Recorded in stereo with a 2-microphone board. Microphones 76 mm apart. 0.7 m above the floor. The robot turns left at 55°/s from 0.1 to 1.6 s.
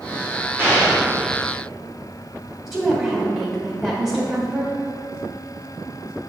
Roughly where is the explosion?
Right.